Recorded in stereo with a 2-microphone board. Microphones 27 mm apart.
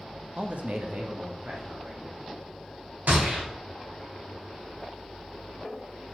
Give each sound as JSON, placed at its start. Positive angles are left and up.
{"t": 0.4, "sound": "a man speaking", "side_deg": -40, "distance_m": 0.7}
{"t": 3.1, "sound": "a gunshot", "side_deg": -85, "distance_m": 3.5}